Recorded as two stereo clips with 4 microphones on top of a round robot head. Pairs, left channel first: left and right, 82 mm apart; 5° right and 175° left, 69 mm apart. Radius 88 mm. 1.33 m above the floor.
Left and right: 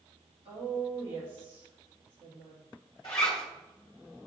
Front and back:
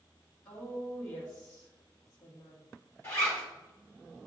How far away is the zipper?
About 0.9 m.